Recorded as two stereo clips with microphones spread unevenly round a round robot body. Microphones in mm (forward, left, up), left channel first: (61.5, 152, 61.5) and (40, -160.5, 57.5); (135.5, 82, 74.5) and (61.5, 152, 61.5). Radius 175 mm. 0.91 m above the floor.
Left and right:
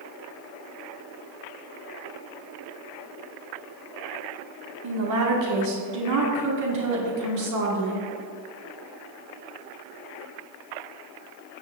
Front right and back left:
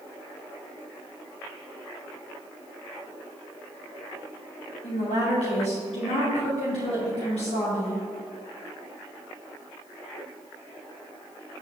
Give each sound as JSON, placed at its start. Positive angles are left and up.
{"t": 4.8, "sound": "a woman speaking", "azimuth_deg": -65, "distance_m": 2.0}